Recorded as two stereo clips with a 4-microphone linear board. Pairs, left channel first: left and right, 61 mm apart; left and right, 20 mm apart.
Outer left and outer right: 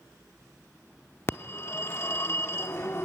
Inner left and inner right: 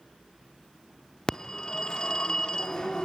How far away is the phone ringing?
About 0.6 m.